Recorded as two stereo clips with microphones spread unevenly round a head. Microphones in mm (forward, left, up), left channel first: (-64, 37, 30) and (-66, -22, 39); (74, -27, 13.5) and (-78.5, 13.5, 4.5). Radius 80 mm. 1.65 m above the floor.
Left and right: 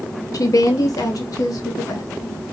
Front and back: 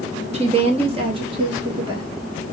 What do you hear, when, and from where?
0.3 s a woman speaking: 110° left, 1.4 m; by 2.1 s 100° left, 2.5 m